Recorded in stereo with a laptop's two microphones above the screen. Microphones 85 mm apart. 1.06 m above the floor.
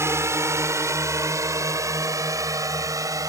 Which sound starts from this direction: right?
A drone, at 0.0 s.